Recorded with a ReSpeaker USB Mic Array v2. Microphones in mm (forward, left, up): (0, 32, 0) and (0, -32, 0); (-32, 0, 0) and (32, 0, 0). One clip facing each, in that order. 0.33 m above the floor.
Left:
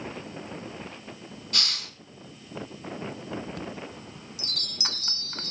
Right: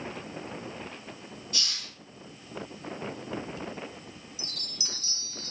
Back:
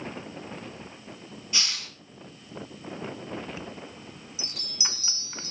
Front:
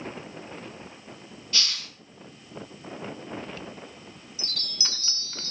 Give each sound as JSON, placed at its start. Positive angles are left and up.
{"t": 1.5, "sound": "a hiss", "azimuth_deg": 110, "distance_m": 2.5}
{"t": 3.5, "sound": "a chime", "azimuth_deg": 110, "distance_m": 1.3}